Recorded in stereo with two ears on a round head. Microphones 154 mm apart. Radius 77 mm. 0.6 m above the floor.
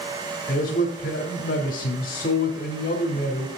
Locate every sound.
0.5 s a man speaking: 50° left (ahead or behind), 1.2 m